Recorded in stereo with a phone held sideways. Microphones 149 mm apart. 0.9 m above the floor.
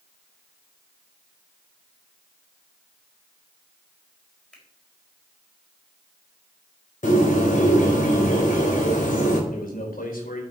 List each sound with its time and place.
4.5 s a finger snap: 5° left (ahead or behind), 4.5 m
7.0 s a bird: 60° left (ahead or behind), 4.5 m
9.5 s a man speaking: 75° left (ahead or behind), 4.5 m